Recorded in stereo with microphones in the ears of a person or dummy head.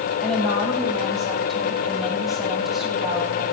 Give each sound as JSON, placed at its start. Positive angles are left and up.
{"t": 0.2, "sound": "a woman speaking", "side_deg": 5, "distance_m": 8.5}